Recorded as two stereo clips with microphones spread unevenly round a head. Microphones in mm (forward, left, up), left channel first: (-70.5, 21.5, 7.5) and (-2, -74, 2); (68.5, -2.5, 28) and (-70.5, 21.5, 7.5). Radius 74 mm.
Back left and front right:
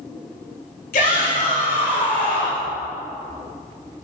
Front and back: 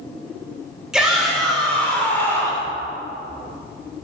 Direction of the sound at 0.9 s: 85° left.